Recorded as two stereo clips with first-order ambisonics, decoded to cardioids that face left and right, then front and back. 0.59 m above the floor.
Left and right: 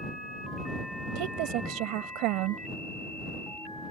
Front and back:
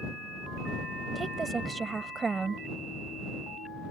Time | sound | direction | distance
1.1 | a woman speaking | 105° right | ?